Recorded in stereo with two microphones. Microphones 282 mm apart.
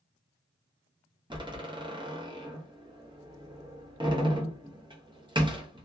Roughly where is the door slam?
Centre.